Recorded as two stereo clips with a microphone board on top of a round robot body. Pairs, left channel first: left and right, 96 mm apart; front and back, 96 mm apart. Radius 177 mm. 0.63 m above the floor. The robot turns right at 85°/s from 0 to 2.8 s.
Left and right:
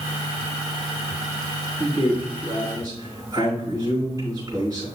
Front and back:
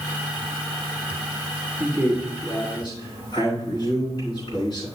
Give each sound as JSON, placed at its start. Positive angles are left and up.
{"t": 1.8, "sound": "a man speaking", "azimuth_deg": -130, "distance_m": 4.5}